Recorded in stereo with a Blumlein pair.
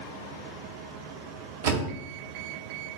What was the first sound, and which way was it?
A door slam, 55° right.